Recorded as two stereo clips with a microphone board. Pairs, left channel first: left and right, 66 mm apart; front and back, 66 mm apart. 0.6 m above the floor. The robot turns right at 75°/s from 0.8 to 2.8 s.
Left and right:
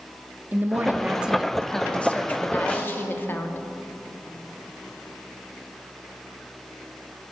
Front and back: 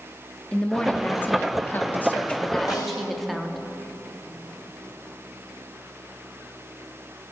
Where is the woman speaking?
60° right, 0.7 m; by 3.6 s 90° left, 0.7 m.